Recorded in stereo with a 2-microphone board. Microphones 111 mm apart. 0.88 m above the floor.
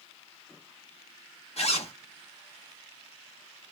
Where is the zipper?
65° left (ahead or behind), 0.8 m.